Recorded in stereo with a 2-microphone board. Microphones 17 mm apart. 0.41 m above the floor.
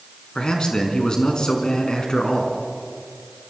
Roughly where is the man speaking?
Left.